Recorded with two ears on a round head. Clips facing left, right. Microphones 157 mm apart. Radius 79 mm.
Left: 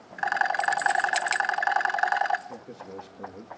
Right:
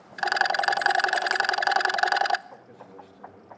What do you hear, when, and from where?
0.2 s a rattle: 50° right (ahead or behind), 0.6 m
2.5 s a man speaking: 60° left (ahead or behind), 2 m